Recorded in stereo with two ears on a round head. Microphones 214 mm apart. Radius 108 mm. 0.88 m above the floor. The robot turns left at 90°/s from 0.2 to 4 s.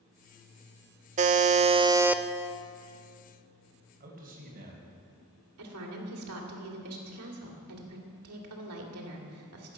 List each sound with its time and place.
1.2 s a buzzer: 80° right, 0.6 m; by 2.2 s 175° right, 0.6 m
4.0 s a man speaking: 40° right (ahead or behind), 4 m
5.6 s a woman speaking: 75° right (ahead or behind), 2.5 m